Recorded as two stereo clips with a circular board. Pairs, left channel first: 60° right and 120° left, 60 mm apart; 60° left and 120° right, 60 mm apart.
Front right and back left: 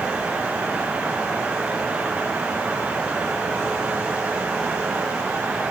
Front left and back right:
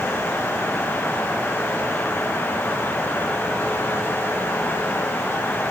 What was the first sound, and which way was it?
Only background noise.